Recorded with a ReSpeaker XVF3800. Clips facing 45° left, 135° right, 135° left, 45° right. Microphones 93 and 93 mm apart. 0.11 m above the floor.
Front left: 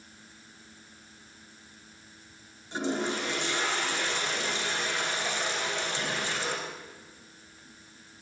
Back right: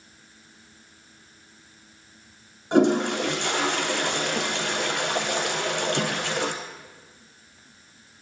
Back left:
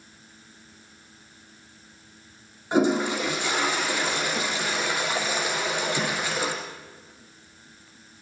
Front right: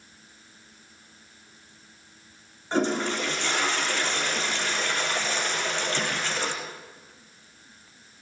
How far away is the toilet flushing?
About 4 m.